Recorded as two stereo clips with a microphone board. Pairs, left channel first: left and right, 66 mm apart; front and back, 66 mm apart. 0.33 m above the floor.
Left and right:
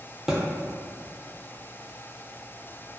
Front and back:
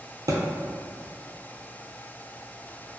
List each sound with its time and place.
0.3 s a thud: 170° right, 0.5 m